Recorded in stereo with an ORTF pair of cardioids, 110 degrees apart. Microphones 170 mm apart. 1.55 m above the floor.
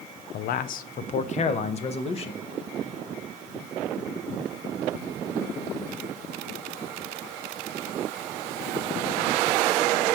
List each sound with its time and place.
0.3 s a man speaking: 65° left, 0.9 m; by 2.4 s 35° left, 2.5 m